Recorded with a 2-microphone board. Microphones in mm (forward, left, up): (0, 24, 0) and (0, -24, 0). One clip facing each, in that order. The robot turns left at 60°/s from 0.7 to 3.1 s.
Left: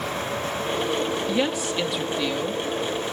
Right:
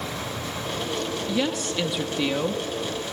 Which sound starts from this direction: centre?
A woman speaking, at 1.3 s.